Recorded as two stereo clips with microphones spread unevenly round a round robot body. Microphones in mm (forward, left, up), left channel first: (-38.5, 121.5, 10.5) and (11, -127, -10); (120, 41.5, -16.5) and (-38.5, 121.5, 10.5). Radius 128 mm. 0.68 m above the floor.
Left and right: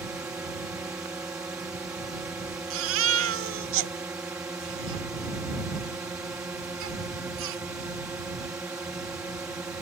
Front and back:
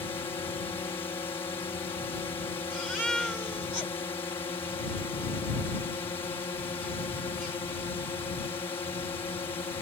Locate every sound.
0.0 s a drone: 10° right
2.7 s a baby crying: 115° right